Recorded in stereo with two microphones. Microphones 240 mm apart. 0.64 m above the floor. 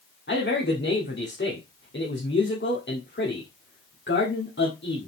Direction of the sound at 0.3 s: 50° left (ahead or behind).